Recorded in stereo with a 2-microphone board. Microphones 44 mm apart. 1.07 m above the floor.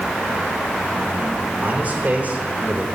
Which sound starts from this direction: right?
A man speaking, at 1.6 s.